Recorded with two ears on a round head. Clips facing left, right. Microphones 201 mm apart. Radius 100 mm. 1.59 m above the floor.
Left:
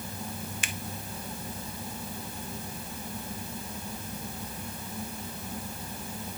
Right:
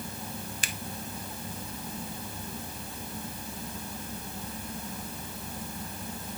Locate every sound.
0.6 s a finger snap: 30° right (ahead or behind), 0.8 m